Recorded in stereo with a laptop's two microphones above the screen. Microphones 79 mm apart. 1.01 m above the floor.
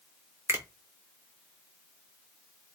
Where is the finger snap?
35° right (ahead or behind), 1.0 m.